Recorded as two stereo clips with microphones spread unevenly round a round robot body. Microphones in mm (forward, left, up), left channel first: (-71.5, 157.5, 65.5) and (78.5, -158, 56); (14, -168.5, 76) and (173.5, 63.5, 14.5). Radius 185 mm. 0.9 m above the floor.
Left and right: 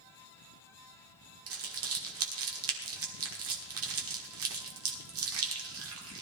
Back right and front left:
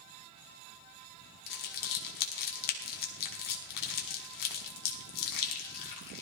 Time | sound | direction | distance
1.5 | crumpling | 120° right | 1.5 m